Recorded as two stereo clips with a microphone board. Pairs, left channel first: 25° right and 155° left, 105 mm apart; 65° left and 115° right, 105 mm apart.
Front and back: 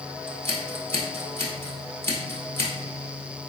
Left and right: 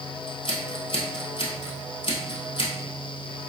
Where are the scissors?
40° left, 1.4 m.